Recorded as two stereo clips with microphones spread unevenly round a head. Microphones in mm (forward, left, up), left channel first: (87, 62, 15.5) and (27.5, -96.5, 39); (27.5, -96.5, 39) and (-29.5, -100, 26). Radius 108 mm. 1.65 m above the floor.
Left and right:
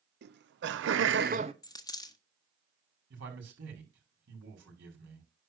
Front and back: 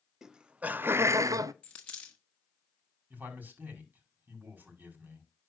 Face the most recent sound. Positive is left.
turn(degrees=-120)